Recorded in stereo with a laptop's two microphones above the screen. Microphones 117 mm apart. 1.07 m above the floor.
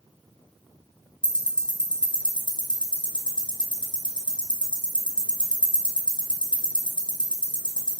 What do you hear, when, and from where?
1.2 s ticking: 40° left (ahead or behind), 0.8 m